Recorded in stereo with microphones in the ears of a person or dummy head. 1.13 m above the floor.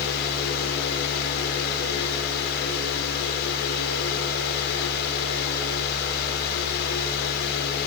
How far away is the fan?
About 4 m.